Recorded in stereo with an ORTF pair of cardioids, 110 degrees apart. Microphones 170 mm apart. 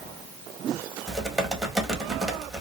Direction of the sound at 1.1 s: Straight ahead.